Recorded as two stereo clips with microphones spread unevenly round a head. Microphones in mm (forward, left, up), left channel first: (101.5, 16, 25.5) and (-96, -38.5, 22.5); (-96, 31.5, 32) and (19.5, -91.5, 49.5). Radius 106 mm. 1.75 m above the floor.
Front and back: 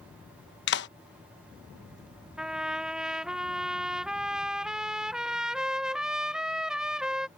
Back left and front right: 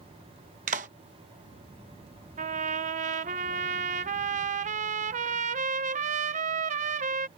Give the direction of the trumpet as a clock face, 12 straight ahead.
3 o'clock.